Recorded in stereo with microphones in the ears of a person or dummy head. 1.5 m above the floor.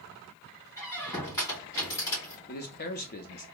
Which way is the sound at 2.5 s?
45° left (ahead or behind).